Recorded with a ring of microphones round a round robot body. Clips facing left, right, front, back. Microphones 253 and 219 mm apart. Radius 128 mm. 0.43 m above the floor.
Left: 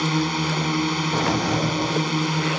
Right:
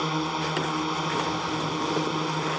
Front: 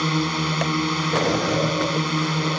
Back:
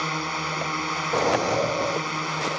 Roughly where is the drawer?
Left.